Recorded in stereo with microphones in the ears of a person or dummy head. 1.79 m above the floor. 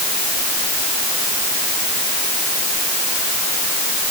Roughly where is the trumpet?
I don't hear a trumpet.